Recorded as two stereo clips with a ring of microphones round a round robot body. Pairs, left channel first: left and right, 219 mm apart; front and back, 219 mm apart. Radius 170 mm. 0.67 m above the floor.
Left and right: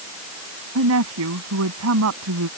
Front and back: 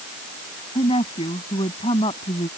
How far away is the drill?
I don't hear a drill.